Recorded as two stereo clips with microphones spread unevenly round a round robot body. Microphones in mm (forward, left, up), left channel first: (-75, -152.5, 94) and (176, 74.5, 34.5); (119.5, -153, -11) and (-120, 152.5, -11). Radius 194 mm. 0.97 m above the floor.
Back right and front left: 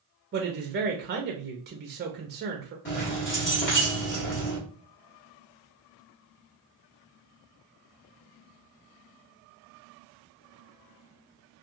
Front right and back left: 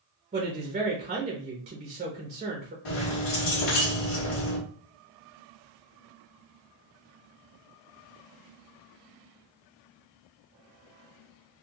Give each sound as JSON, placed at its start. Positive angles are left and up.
{"t": 0.3, "sound": "a woman speaking", "azimuth_deg": 65, "distance_m": 0.6}
{"t": 2.9, "sound": "keys jangling", "azimuth_deg": -80, "distance_m": 1.4}